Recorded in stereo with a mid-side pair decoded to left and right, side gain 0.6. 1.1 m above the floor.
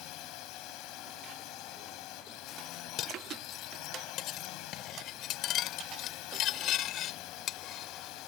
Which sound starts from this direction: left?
A drone, at 0.0 s.